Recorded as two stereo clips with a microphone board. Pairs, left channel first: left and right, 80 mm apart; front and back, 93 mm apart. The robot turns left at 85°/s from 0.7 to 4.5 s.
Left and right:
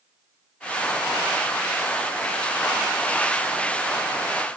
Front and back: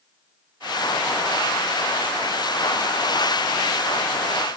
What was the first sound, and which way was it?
Only background noise.